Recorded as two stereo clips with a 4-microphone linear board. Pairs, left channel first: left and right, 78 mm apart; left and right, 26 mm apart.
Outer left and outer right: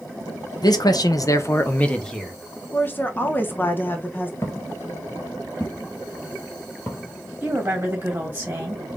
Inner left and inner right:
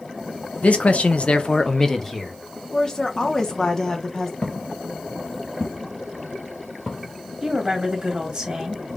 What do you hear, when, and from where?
0.6 s a man speaking: 55° left (ahead or behind), 0.9 m; by 2.3 s 5° left (ahead or behind), 1.1 m
2.7 s a woman speaking: 25° left (ahead or behind), 0.8 m
4.4 s footsteps: 35° left (ahead or behind), 1.5 m; by 7.1 s 15° left (ahead or behind), 2 m
7.4 s a woman speaking: 20° right (ahead or behind), 2.5 m